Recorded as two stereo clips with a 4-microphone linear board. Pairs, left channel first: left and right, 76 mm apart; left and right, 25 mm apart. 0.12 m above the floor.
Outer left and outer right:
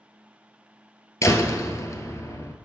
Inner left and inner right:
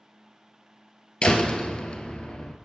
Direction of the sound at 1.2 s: 40° left (ahead or behind).